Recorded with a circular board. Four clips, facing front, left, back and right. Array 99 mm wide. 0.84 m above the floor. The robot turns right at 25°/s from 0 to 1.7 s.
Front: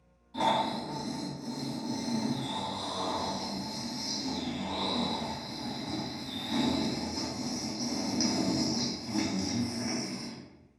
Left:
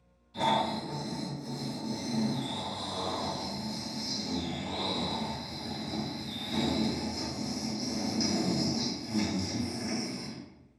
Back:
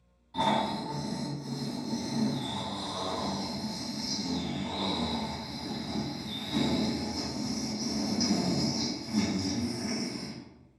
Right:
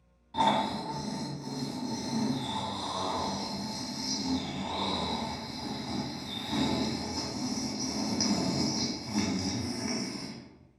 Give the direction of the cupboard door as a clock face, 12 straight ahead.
I don't hear a cupboard door.